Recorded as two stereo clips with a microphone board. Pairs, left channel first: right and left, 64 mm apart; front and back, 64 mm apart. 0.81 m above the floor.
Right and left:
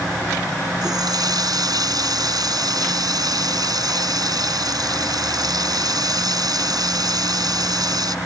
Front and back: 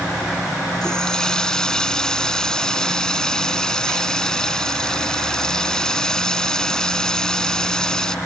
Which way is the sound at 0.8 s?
80° left.